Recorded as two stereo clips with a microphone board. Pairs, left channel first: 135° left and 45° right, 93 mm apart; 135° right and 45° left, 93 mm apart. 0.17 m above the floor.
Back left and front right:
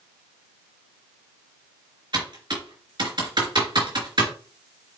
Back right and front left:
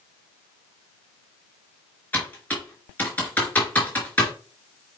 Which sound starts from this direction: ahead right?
Typing on a keyboard, at 2.1 s.